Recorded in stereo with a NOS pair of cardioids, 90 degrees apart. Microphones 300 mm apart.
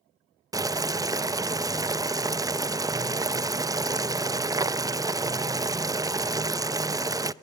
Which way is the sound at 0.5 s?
10° right.